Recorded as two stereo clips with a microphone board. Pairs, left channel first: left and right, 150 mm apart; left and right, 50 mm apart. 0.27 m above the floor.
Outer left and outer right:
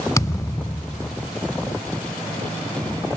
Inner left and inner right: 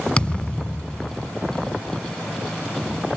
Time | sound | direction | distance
0.2 | a thud | 20° left (ahead or behind) | ?